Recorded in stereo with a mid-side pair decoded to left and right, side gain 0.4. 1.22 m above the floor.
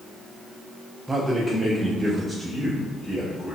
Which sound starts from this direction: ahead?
A man speaking, at 1.1 s.